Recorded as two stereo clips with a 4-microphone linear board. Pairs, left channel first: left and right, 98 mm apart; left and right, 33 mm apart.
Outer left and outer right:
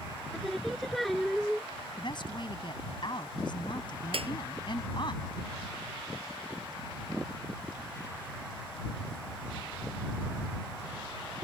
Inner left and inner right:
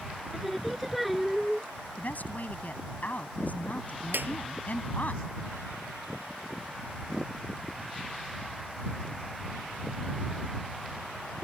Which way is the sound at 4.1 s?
75° right (ahead or behind).